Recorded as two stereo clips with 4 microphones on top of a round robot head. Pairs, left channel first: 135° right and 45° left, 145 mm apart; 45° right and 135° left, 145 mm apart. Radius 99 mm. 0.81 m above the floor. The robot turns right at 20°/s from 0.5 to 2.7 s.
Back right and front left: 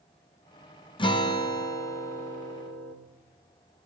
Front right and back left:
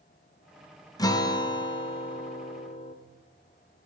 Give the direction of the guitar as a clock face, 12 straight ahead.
3 o'clock.